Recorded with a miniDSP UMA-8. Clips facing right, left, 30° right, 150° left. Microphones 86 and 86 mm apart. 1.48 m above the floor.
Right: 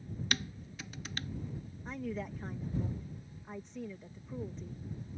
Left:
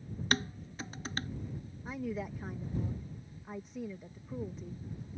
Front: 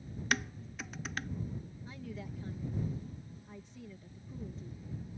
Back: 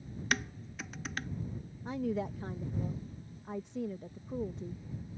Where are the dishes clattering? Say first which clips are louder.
Left 6 dB, even; 60° left.